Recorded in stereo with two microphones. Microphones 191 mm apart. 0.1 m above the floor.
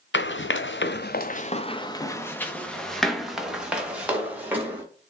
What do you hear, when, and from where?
0.1 s running footsteps: 75° left (ahead or behind), 0.7 m; by 4.8 s 10° right (ahead or behind), 2 m